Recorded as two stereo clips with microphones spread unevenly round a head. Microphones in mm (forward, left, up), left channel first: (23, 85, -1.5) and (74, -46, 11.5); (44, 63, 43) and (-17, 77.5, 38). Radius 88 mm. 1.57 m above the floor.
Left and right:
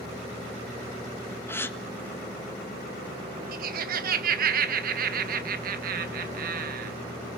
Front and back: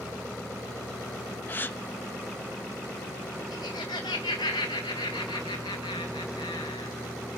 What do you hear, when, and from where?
1.5 s a gasp: 35° left, 1.3 m
3.5 s laughter: 60° right, 1.4 m